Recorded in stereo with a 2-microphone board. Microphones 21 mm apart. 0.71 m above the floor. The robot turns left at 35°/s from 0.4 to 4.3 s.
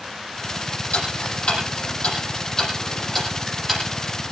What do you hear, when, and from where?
0.9 s ticking: 85° left, 8.5 m; by 3.8 s 15° right (ahead or behind), 8.5 m